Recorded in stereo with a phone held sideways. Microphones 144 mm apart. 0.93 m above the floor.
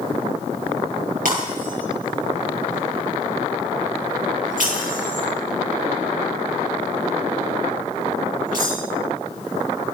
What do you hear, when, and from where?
1.2 s breaking glass: 70° right (ahead or behind), 10 m